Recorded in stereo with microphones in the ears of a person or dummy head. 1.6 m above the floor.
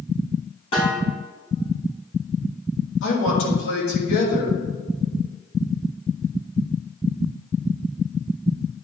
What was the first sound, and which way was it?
A snare drum, 35° left (ahead or behind).